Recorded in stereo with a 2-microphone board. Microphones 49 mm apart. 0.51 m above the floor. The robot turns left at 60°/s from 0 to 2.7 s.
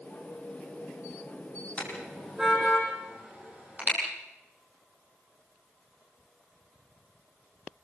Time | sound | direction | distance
1.8 | a car horn | 25° left (ahead or behind) | 8 m